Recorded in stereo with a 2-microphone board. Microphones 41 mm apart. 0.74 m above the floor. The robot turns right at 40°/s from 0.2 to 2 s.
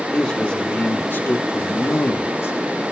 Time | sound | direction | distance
0.1 | a man speaking | 40° left | 1.5 m